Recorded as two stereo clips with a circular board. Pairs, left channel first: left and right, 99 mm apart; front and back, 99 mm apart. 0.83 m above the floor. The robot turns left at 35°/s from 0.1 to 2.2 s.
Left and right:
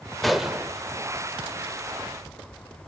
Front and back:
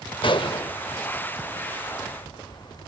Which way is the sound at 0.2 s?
5° left.